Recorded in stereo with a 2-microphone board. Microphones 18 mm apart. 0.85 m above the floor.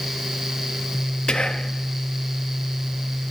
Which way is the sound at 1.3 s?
65° left (ahead or behind).